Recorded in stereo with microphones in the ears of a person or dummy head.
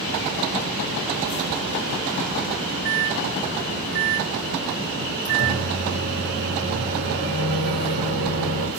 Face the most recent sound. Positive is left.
turn(degrees=-55)  # may be behind; listen again after turning